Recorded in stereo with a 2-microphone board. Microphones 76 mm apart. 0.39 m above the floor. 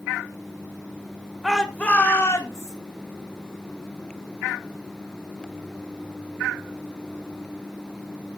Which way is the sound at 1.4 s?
5° right (ahead or behind).